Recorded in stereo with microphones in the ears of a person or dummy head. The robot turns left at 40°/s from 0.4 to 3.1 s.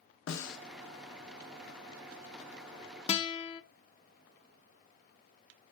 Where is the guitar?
35° left (ahead or behind), 0.5 m.